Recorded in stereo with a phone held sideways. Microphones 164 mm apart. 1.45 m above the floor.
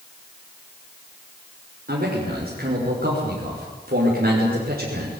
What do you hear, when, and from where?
1.9 s a man speaking: 60° right (ahead or behind), 5.5 m